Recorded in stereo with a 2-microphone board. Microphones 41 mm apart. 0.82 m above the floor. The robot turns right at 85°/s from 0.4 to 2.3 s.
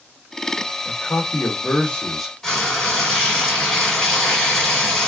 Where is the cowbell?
I don't hear a cowbell.